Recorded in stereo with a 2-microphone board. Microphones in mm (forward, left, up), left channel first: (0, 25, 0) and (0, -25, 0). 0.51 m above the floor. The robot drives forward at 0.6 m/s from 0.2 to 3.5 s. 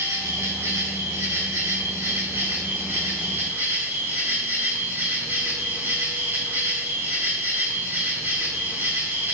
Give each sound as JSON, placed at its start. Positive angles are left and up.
{"t": 0.0, "sound": "an insect", "side_deg": -65, "distance_m": 2.5}